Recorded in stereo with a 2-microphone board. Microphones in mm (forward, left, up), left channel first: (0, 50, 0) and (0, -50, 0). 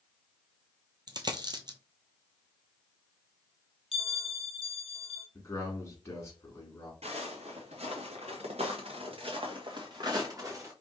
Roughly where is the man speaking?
Left.